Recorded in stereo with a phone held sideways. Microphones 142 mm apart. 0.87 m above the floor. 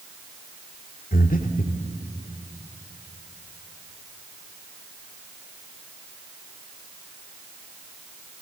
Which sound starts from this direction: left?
Breathing, at 1.1 s.